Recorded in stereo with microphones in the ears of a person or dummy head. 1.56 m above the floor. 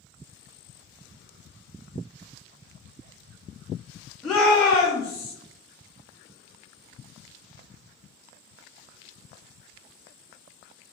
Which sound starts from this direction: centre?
A shout, at 4.2 s.